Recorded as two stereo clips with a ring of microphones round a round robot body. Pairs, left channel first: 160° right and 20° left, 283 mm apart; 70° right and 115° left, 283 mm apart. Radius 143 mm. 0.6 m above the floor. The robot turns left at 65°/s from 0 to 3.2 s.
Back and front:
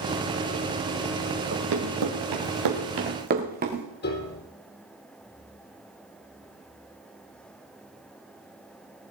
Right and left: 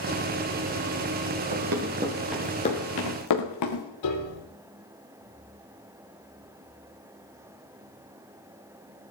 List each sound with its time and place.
1.5 s running footsteps: 80° left, 5 m; by 3.9 s 40° right, 3 m
4.0 s a piano: 100° right, 4 m